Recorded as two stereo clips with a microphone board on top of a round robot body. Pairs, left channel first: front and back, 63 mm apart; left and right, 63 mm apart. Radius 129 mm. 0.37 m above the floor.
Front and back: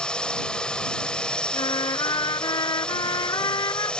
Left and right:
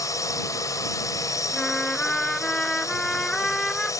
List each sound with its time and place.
0.0 s a drone: 75° left
1.5 s a trumpet: 10° left